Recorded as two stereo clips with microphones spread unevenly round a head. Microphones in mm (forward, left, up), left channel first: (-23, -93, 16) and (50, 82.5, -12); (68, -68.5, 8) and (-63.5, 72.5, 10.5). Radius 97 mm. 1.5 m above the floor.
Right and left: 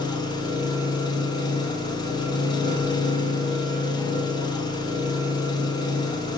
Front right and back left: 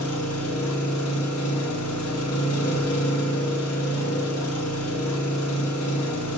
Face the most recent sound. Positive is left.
turn(degrees=-45)